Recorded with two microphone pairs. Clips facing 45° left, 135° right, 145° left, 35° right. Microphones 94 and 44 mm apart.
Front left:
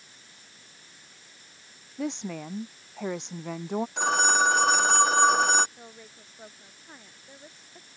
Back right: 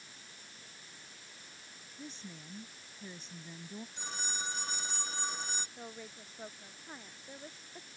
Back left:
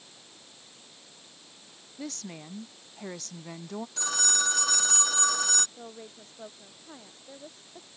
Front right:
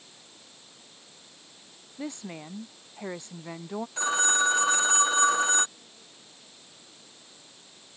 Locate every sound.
2.0 s a woman speaking: 40° left
4.0 s a phone ringing: 30° left
5.8 s a woman speaking: 140° left